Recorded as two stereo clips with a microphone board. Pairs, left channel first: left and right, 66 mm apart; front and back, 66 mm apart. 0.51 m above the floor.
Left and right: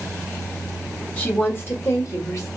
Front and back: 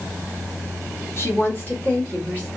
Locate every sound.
1.2 s a woman speaking: 30° left, 1.3 m; by 2.5 s 70° left, 1.8 m